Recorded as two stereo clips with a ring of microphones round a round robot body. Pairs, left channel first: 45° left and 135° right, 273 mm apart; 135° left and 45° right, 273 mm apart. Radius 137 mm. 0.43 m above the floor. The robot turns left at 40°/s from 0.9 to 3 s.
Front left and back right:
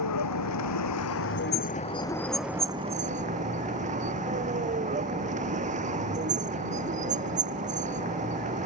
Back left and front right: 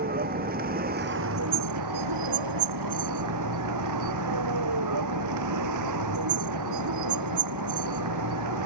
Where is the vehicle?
15° left; by 8.7 s 70° right.